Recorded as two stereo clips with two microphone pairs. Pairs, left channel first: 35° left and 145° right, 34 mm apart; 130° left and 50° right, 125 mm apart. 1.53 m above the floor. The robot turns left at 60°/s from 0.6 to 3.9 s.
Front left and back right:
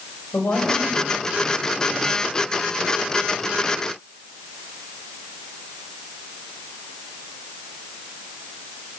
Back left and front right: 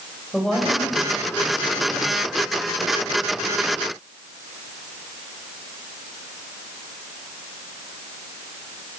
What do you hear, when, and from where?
0.3 s a woman speaking: 40° left, 7 m; by 2.4 s 65° right, 7 m